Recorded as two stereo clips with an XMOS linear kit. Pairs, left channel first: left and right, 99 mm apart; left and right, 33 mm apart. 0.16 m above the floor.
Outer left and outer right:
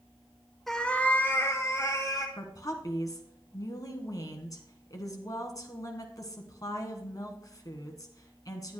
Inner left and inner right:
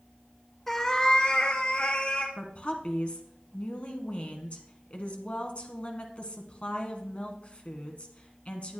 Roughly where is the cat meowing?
Centre.